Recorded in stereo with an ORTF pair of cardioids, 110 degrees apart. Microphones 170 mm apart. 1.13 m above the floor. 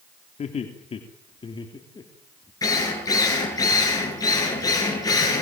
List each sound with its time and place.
0.4 s laughter: 40° left, 3 m; by 2.5 s 20° left, 3 m
2.6 s a drill: 20° left, 9 m